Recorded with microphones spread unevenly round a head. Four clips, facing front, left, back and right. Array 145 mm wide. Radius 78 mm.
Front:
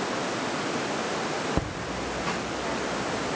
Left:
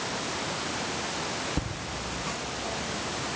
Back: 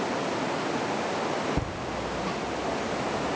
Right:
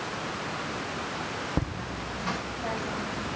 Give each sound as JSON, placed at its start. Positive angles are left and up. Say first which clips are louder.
{"t": 1.6, "sound": "laughter", "louder": "right 2 dB, even", "azimuth_deg": -25, "distance_m": 2.0}